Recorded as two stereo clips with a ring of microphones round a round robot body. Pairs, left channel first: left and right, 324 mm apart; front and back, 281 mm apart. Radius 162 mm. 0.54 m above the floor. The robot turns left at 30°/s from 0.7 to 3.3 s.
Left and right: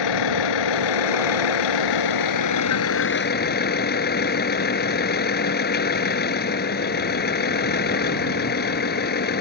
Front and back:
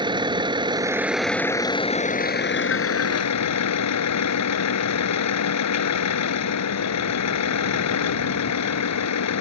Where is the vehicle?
105° left; by 9.4 s 30° left.